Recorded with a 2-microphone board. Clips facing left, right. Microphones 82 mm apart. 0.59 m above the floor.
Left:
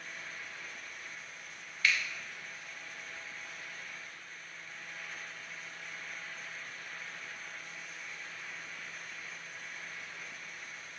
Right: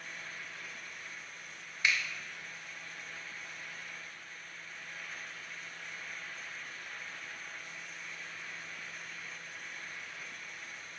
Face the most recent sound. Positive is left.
turn(degrees=-20)  # may be behind; listen again after turning